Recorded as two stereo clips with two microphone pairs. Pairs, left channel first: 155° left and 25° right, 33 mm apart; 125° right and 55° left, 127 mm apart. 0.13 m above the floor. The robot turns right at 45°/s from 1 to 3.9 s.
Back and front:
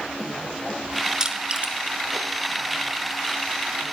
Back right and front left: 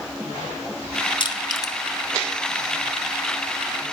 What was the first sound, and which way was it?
Crushing, 95° right.